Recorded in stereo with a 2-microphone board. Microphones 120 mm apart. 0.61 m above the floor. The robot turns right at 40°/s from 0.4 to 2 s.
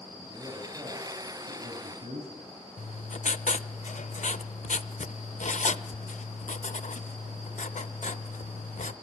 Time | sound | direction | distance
0.2 | a man speaking | 160° right | 5 m
2.8 | writing | 75° left (ahead or behind) | 0.6 m